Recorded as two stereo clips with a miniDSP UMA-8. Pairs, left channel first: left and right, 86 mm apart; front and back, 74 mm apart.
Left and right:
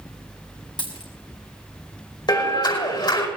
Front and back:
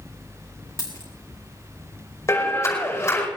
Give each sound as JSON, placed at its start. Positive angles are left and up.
{"t": 0.8, "sound": "a dropped coin", "azimuth_deg": 55, "distance_m": 2.5}
{"t": 2.3, "sound": "a clap", "azimuth_deg": 55, "distance_m": 5.0}